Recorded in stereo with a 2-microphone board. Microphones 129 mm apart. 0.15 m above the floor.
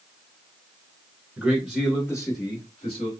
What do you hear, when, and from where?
1.4 s a man speaking: 10° right (ahead or behind), 1.1 m; by 3.1 s 45° left (ahead or behind), 1.4 m